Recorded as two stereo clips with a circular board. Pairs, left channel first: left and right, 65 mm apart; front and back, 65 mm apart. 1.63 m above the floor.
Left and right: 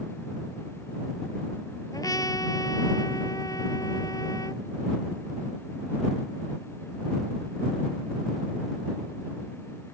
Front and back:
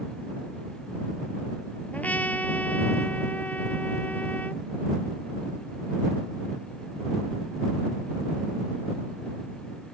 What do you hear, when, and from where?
1.9 s a trumpet: 65° left